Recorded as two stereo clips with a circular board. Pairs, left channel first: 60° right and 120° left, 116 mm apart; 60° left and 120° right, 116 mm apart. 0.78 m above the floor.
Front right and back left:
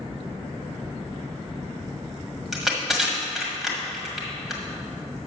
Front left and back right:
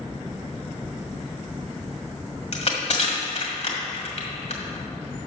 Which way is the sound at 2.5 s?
35° left.